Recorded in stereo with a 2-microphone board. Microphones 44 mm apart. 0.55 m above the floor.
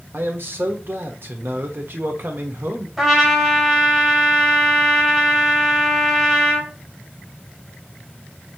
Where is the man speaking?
50° right (ahead or behind), 1.1 m.